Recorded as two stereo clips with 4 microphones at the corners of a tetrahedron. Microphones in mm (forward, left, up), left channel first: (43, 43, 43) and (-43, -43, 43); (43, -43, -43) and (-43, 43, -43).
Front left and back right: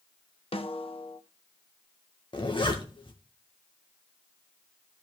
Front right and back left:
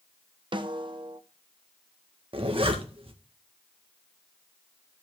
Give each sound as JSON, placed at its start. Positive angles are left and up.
{"t": 0.5, "sound": "a snare drum", "azimuth_deg": 85, "distance_m": 1.0}
{"t": 2.3, "sound": "a zipper", "azimuth_deg": 95, "distance_m": 1.8}